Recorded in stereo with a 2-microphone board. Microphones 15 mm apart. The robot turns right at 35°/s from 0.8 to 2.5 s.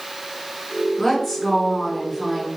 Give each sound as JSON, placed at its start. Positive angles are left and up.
{"t": 1.0, "sound": "a woman speaking", "side_deg": 30, "distance_m": 1.7}